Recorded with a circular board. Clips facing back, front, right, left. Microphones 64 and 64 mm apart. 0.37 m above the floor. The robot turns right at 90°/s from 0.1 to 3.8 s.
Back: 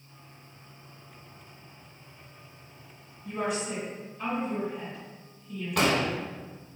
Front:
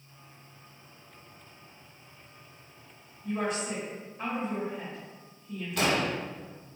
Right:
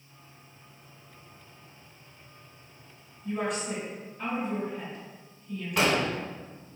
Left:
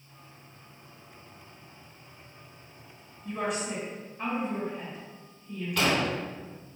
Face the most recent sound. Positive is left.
turn(degrees=-160)